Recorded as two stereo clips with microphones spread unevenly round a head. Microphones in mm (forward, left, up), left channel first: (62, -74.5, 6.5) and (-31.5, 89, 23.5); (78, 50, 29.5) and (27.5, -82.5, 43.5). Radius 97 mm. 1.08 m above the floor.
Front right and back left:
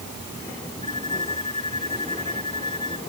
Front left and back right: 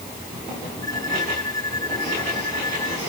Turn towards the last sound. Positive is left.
turn(degrees=5)